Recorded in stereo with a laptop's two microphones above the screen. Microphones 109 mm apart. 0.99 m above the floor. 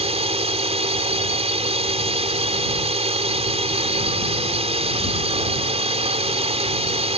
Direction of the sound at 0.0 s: 75° right (ahead or behind).